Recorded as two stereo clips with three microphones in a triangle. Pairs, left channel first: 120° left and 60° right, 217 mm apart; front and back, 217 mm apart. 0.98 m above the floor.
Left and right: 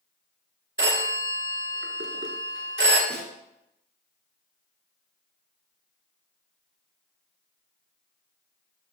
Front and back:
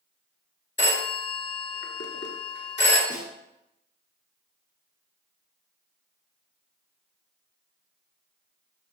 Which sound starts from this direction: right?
A snare drum, at 3.1 s.